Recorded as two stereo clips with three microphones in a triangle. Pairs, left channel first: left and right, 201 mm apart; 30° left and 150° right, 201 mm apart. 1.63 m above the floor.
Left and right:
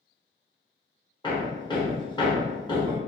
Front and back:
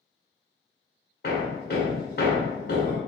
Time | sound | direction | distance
1.2 | hammering | 30° left | 0.8 m